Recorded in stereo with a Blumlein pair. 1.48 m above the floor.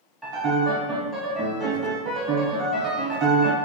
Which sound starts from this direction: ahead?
A piano, at 0.2 s.